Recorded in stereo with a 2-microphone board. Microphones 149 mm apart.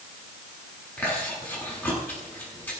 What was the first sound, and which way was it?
Chewing, 15° left (ahead or behind).